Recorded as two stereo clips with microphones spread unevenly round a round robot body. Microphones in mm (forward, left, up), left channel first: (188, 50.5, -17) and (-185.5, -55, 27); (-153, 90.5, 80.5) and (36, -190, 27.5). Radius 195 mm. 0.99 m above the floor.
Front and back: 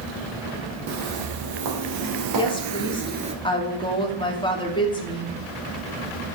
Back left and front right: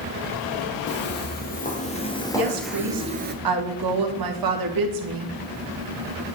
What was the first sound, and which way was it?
Footsteps, 175° left.